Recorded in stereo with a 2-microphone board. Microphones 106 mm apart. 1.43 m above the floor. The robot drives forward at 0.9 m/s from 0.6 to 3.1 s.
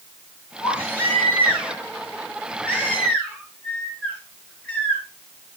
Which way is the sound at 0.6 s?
15° left (ahead or behind).